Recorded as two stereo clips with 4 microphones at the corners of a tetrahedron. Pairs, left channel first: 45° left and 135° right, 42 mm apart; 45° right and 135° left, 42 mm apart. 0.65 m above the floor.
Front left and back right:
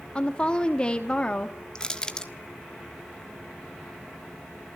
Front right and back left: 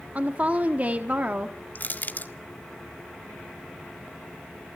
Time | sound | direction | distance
0.1 | a woman speaking | 100° left | 1.1 m
1.8 | crushing | 20° right | 1.4 m